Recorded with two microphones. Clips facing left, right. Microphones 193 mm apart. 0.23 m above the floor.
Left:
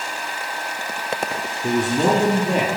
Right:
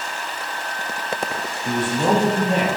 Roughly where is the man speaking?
Left.